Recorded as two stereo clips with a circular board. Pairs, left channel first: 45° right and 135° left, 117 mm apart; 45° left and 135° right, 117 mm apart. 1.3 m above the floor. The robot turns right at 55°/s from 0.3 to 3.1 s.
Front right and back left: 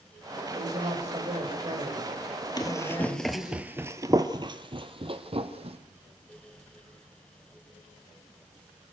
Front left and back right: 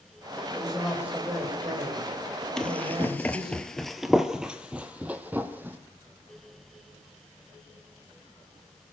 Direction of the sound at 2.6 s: 35° right.